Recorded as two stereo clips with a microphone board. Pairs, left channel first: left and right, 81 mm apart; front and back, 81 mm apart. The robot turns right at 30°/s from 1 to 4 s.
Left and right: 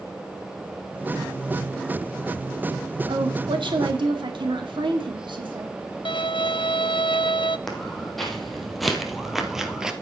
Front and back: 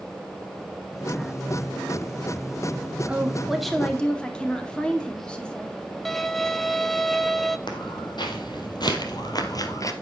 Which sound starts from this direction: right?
A woman speaking, at 3.1 s.